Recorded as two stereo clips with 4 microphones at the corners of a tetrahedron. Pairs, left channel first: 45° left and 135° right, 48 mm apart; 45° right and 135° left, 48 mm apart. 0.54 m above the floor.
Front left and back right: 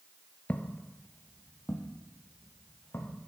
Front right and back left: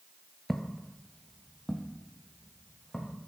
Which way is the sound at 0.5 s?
30° left.